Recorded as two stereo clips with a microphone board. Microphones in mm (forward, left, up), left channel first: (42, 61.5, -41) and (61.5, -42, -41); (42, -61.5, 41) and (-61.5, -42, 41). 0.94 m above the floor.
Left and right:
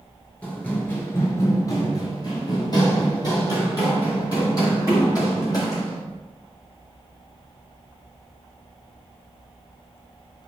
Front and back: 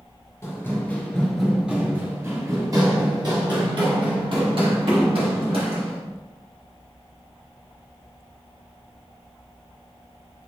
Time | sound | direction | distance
0.4 | running footsteps | 30° left | 1.1 m